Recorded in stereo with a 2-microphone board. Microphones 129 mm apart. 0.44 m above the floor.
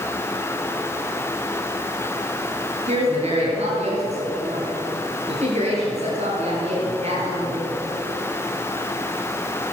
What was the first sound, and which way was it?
A woman speaking, 55° right (ahead or behind).